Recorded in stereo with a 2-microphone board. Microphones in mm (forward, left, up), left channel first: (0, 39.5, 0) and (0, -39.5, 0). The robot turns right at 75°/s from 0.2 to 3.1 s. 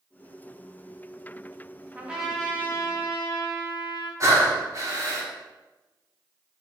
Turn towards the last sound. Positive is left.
turn(degrees=-40)  # may be behind; listen again after turning